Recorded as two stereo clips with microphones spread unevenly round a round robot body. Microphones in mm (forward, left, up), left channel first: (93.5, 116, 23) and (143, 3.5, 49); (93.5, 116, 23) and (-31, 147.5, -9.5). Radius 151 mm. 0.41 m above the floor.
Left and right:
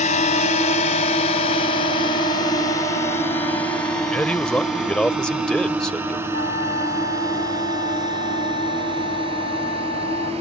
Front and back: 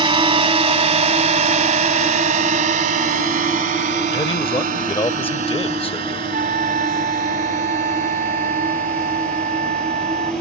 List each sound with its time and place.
0.0 s a drone: 120° left; by 10.4 s 135° right
4.1 s a man speaking: 35° left
6.3 s a trumpet: 165° left